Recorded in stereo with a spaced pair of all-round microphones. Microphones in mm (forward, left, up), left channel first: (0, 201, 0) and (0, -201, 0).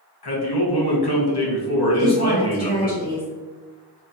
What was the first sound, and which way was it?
A man speaking, 70° left (ahead or behind).